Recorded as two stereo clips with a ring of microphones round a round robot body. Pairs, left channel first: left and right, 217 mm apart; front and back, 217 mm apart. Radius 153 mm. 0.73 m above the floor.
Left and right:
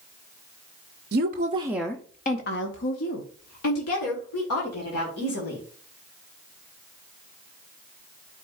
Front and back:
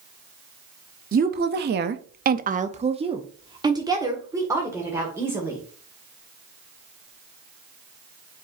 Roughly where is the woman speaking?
Behind right.